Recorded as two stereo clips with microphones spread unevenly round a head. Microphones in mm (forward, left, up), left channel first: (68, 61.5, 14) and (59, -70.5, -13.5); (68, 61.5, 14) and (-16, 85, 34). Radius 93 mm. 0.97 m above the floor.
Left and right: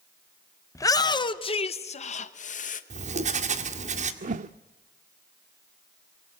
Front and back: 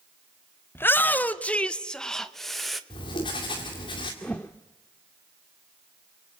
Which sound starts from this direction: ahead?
A shout, at 0.8 s.